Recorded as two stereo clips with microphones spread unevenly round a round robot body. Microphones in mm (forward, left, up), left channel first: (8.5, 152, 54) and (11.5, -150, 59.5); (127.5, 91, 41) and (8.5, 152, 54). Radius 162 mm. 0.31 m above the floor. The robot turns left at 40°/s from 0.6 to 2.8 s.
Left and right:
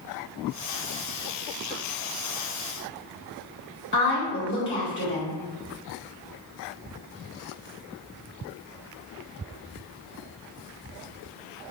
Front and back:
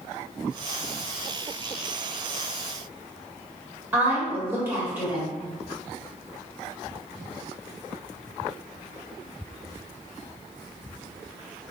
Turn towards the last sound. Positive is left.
turn(degrees=80)